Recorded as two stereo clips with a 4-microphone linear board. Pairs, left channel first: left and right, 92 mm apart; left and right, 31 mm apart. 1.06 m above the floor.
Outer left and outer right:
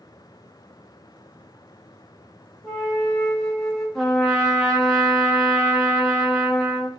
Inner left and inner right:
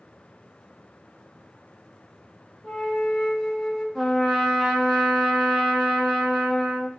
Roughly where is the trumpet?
Centre.